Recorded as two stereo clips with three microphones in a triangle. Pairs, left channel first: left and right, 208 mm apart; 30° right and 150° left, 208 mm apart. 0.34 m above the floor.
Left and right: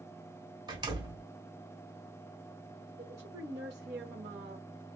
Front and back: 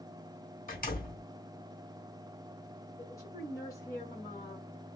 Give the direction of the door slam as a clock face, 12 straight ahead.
1 o'clock.